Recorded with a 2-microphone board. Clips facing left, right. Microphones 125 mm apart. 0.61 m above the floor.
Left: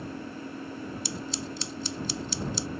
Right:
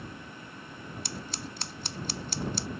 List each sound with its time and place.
0.0 s an engine running: 40° left (ahead or behind)
1.1 s scissors: 60° right (ahead or behind)